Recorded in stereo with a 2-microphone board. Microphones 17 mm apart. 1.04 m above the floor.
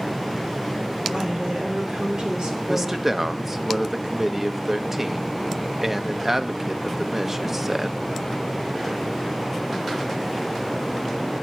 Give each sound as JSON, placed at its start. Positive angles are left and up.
{"t": 1.1, "sound": "a woman speaking", "side_deg": -60, "distance_m": 3.0}
{"t": 2.7, "sound": "a man speaking", "side_deg": -20, "distance_m": 1.0}